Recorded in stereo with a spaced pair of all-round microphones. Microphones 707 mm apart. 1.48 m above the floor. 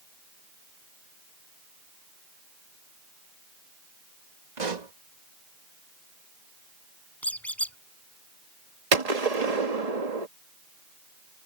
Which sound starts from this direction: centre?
A squeak, at 7.2 s.